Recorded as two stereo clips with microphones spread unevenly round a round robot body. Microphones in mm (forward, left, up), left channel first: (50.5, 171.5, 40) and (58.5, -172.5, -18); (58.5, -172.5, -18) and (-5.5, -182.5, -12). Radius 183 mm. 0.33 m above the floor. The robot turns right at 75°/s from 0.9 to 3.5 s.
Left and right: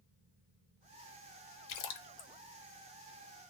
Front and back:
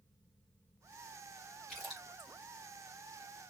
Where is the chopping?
I don't hear chopping.